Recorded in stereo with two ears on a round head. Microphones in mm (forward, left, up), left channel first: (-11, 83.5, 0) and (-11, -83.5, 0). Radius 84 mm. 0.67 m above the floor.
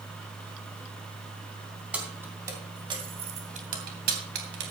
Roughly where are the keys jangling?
Centre.